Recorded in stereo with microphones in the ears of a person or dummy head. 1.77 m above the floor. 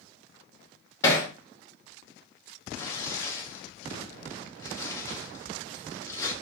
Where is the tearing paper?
20° left (ahead or behind), 0.9 m.